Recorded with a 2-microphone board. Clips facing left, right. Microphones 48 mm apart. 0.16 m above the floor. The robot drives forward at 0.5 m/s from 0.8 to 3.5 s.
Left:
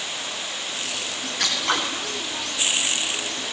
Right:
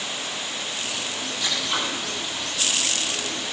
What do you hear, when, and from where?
1.4 s scissors: 75° left (ahead or behind), 10 m